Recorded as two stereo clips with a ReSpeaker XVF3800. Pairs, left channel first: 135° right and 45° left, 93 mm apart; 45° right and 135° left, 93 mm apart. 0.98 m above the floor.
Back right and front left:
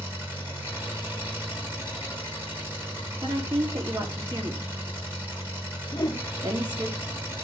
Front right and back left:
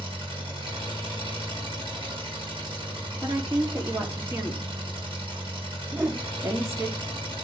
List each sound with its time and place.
0.0 s an engine running: 110° left, 5.5 m
3.2 s a woman speaking: 80° left, 1.8 m
5.9 s a whoosh: 165° right, 0.7 m